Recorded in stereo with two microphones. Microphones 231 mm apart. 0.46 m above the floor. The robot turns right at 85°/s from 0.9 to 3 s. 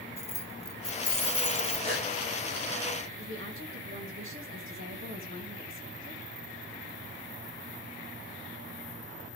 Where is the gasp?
25° right (ahead or behind), 9.5 m; by 2.1 s 45° right (ahead or behind), 9.5 m.